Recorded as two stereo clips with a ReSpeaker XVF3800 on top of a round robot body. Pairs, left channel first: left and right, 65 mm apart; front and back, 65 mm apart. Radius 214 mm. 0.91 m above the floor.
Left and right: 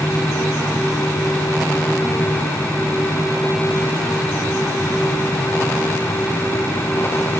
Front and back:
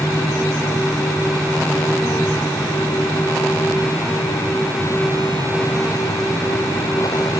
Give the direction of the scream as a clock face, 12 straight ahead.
No scream in this recording.